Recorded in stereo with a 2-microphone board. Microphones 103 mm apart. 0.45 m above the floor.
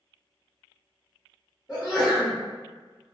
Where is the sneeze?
Centre (ahead or behind), 1.1 m.